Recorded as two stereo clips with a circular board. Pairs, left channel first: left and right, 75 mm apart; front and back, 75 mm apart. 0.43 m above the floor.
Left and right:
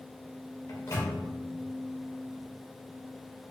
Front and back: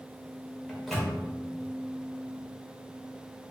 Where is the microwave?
90° left, 1.0 m.